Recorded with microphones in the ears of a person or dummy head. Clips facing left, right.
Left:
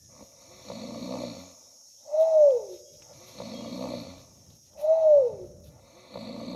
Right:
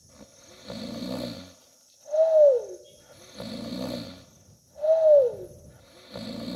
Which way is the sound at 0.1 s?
10° right (ahead or behind).